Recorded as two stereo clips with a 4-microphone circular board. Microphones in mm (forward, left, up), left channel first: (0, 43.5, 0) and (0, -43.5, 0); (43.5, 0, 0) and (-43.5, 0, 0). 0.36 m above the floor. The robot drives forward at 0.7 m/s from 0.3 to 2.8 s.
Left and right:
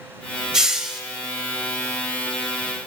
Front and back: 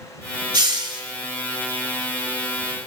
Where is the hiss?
170° right, 1.1 m; by 1.0 s 175° right, 1.4 m.